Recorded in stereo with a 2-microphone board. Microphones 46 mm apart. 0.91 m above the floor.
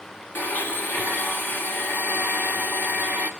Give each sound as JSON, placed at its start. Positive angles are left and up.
{"t": 0.3, "sound": "a blender", "side_deg": 50, "distance_m": 1.8}